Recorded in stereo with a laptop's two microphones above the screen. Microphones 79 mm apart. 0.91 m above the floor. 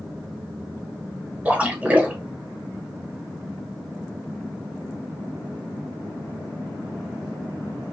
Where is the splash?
15° right (ahead or behind), 1.3 m.